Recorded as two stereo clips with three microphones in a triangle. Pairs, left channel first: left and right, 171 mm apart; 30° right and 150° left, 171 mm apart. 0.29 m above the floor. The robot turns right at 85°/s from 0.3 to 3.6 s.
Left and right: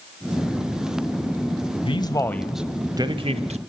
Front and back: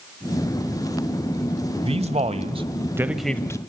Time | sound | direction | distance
1.8 | a man speaking | 120° left | 1.1 m